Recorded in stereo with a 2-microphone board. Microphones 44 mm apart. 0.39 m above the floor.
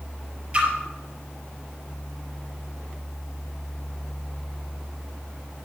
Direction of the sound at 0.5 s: 30° right (ahead or behind).